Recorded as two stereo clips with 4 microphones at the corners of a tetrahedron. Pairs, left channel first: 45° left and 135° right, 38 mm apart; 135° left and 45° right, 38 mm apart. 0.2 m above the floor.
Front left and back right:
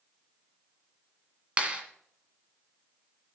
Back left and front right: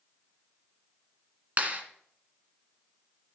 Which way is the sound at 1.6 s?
85° right.